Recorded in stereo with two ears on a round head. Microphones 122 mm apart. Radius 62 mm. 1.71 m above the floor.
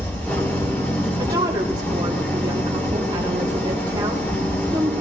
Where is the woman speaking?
30° right (ahead or behind), 1.6 m.